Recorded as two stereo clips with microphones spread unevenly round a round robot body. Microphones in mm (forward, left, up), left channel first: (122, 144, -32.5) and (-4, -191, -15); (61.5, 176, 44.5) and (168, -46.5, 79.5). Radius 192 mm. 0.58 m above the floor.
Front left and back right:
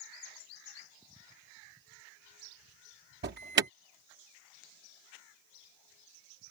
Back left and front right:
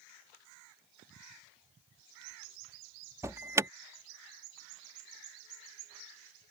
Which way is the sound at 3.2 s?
150° right.